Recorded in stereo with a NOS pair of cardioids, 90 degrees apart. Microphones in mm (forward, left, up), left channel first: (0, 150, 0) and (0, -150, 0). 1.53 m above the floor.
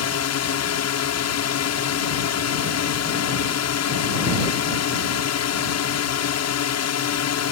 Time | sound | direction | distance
0.0 | a drone | 60° left | ?